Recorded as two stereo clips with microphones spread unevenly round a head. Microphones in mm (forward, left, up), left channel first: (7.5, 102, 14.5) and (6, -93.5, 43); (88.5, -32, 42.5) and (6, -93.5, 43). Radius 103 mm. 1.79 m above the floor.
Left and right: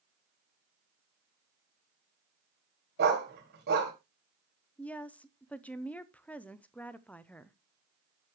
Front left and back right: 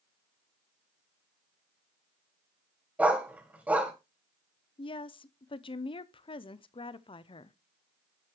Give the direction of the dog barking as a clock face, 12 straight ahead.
2 o'clock.